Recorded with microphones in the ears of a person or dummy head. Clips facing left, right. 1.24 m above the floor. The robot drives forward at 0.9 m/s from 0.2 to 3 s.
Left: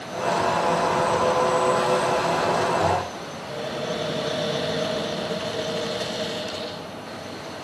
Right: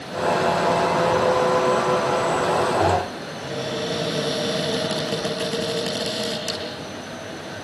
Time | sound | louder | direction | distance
3.4 | a cupboard door | right 3 dB | 75° right (ahead or behind) | 8.5 m